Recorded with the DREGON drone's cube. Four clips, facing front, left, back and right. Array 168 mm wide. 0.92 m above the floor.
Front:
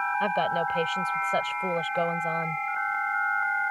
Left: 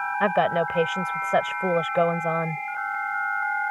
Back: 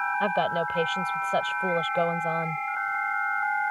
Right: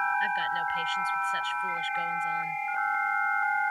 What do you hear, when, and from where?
0.2 s a woman speaking: 100° left